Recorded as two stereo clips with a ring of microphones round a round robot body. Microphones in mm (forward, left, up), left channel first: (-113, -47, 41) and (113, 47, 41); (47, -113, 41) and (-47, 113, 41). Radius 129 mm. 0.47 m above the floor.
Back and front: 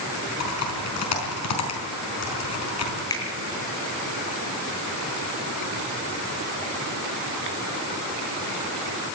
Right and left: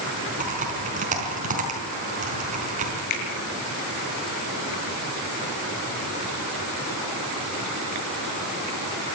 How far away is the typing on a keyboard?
About 5 m.